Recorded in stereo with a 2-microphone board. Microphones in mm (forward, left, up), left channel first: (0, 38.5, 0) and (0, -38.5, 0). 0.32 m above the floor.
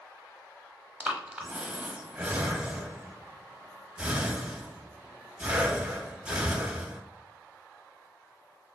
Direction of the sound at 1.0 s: 15° right (ahead or behind).